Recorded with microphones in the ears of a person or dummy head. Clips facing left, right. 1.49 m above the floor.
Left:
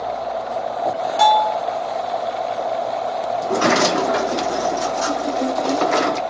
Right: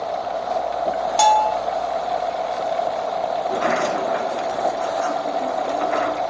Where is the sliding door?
60° left (ahead or behind), 0.5 m.